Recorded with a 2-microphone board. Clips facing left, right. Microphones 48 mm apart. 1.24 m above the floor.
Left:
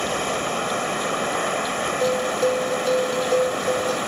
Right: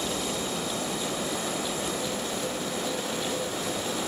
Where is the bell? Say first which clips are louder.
Left 11 dB; 70° left (ahead or behind).